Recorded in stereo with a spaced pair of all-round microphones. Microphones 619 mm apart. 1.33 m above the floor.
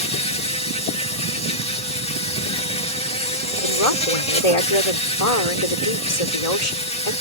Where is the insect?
10° left (ahead or behind).